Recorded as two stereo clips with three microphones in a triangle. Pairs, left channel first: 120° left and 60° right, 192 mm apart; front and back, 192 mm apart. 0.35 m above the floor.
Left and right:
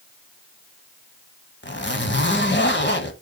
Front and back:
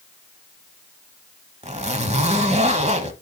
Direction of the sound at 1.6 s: 125° left.